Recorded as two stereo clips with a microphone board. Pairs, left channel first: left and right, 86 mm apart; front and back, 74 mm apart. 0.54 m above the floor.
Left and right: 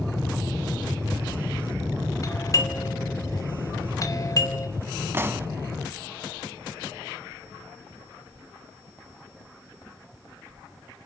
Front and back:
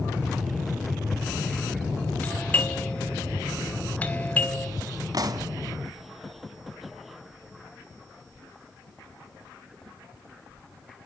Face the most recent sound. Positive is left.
turn(degrees=-150)